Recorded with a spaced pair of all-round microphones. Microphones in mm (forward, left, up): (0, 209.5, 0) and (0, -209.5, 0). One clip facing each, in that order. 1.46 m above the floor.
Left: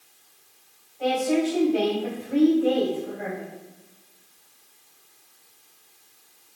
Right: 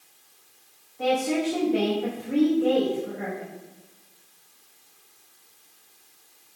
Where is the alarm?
No alarm in this recording.